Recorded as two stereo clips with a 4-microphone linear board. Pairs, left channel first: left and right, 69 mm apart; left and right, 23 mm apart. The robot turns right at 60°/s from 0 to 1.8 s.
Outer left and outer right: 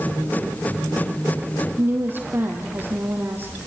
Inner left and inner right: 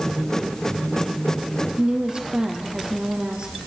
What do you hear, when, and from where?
1.8 s a woman speaking: 30° right (ahead or behind), 4 m